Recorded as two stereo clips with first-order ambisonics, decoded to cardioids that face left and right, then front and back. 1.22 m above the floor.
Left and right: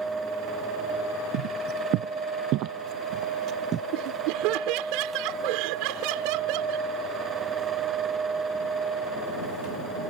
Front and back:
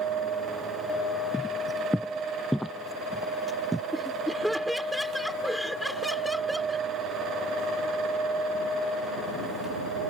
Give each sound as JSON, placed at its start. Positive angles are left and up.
{"t": 1.3, "sound": "footsteps", "azimuth_deg": -85}
{"t": 3.9, "sound": "laughter", "azimuth_deg": -90}